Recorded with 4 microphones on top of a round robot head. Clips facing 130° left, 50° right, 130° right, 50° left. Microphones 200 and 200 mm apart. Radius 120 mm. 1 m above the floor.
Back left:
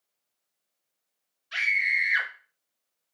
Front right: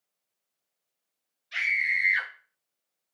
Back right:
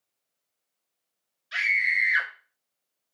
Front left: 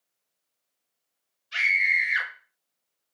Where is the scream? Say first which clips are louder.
Back left 1 dB, front left 1 dB; 150° right, 2.5 m.